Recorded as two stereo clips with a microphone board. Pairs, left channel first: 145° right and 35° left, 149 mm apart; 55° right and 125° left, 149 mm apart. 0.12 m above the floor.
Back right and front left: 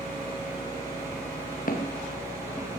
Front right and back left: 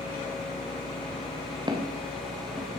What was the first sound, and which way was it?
Footsteps, 175° right.